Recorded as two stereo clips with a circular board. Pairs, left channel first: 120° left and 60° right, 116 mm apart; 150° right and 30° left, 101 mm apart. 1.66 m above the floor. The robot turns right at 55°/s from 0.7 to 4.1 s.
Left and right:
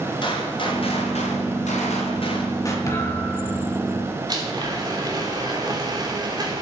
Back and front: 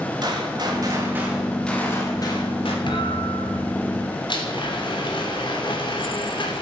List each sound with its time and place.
0.2 s a gunshot: 75° left, 3.5 m; by 2.8 s 170° right, 3.5 m
2.9 s a thud: 175° right, 3 m; by 3.8 s 130° right, 3 m
4.3 s a blender: 115° right, 3.5 m